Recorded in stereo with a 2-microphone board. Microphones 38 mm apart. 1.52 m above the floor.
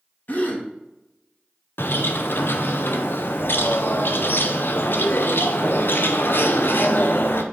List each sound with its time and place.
0.3 s a gasp: 55° left (ahead or behind), 1.4 m
1.8 s a bird: 75° left (ahead or behind), 0.7 m